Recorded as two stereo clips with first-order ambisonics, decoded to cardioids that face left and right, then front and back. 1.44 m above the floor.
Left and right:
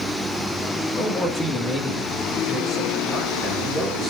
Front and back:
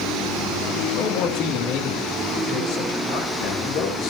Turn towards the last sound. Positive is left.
turn(degrees=15)